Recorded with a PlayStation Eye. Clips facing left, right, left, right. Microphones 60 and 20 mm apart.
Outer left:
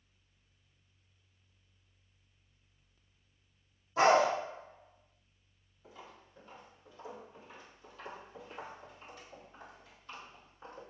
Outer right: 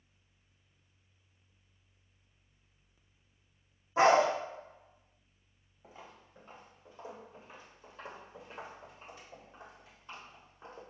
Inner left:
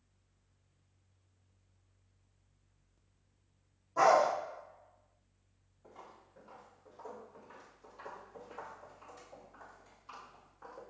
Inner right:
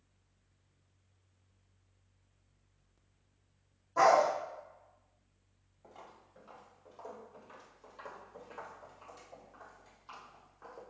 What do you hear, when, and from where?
4.0 s a dog barking: 25° right (ahead or behind), 1.1 m
5.8 s footsteps: 35° right (ahead or behind), 1.8 m; by 10.8 s 15° right (ahead or behind), 3 m